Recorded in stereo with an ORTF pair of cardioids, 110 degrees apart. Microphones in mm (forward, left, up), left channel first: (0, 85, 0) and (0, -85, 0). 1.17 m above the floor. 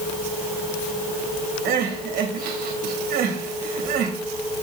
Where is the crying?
60° right, 1.9 m.